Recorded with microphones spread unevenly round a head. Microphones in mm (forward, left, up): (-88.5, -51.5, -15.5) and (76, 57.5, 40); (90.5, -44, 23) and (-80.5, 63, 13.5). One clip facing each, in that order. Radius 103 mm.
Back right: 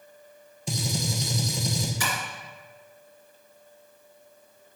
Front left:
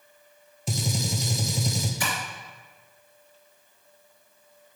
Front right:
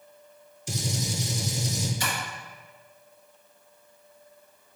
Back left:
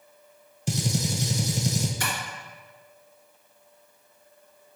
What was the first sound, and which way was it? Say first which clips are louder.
A gunshot: front left 1 dB, back left 4 dB; 125° left.